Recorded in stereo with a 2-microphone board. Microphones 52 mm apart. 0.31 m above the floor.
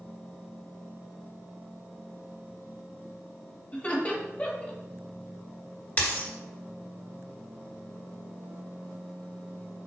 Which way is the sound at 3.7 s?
25° left (ahead or behind).